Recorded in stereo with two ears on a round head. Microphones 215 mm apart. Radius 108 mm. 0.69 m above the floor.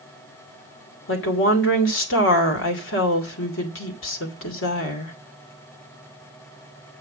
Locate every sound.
1.1 s a woman speaking: 55° left (ahead or behind), 2.5 m